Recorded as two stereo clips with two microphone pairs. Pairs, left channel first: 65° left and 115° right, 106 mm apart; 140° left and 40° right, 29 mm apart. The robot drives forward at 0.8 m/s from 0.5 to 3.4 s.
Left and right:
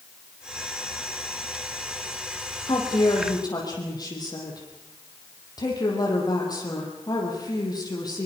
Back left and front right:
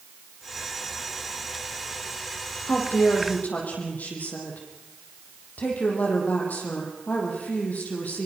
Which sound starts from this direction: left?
A woman speaking, at 2.7 s.